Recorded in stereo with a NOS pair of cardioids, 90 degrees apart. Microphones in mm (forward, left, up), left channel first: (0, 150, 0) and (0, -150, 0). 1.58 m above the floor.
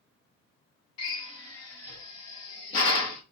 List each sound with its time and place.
1.0 s a drill: 70° left, 2.0 m